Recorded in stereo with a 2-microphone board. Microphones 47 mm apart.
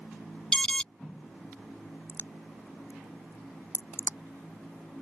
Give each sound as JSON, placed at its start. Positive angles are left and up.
{"t": 0.5, "sound": "an alarm", "side_deg": 15}
{"t": 2.1, "sound": "a crack", "side_deg": 70}